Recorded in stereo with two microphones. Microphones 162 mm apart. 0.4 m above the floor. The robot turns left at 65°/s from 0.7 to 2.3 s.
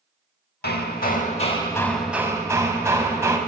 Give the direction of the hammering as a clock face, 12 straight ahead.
9 o'clock.